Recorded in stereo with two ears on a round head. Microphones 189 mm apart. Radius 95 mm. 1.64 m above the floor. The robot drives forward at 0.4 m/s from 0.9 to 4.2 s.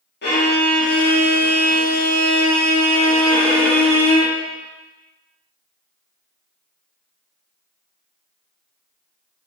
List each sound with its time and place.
0.2 s a violin: 50° left (ahead or behind), 1.3 m; by 4.3 s 30° left (ahead or behind), 2 m